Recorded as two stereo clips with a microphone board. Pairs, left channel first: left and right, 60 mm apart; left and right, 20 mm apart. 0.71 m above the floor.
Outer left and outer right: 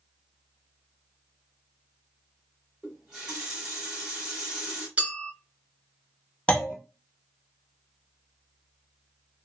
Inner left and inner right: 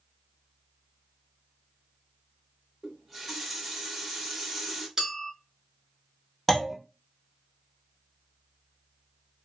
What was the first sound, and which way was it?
A running tap, 10° right (ahead or behind).